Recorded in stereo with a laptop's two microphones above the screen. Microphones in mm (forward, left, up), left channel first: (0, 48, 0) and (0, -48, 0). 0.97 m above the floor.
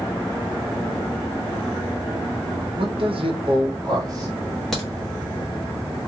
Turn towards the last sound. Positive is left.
turn(degrees=5)  # may be behind; listen again after turning